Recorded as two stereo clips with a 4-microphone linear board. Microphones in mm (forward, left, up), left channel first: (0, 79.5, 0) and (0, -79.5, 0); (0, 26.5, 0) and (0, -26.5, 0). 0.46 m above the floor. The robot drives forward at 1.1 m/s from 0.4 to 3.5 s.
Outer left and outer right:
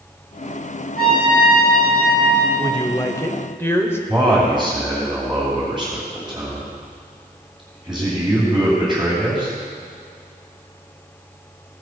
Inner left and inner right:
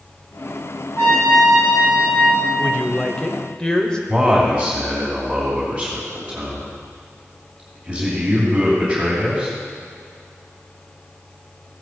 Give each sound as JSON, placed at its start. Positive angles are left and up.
{"t": 1.0, "sound": "a trumpet", "side_deg": 70, "distance_m": 5.0}
{"t": 2.6, "sound": "a woman speaking", "side_deg": 25, "distance_m": 0.8}
{"t": 4.1, "sound": "a man speaking", "side_deg": 0, "distance_m": 2.5}